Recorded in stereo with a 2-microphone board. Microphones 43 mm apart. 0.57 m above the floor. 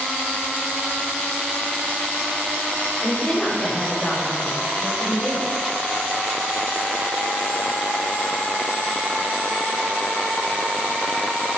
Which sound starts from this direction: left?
A woman speaking, at 3.0 s.